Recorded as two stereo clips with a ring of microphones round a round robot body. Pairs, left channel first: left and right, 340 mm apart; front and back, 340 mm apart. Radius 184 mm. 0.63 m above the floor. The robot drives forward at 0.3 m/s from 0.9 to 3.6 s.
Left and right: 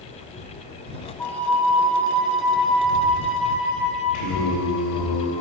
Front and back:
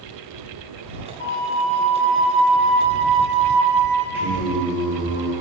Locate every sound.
1.2 s a flute: 170° left, 1.0 m; by 4.0 s 175° left, 1.5 m
4.1 s singing: 95° left, 2.5 m